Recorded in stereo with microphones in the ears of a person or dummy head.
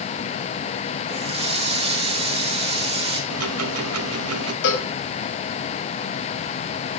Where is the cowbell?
65° left (ahead or behind), 5 m.